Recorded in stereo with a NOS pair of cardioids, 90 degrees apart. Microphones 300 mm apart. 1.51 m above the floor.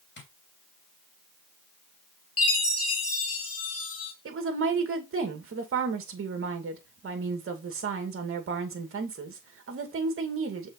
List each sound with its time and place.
0.2 s tapping: 35° left, 3 m
2.4 s a chime: 50° left, 2.5 m
4.2 s a woman speaking: 45° right, 2.5 m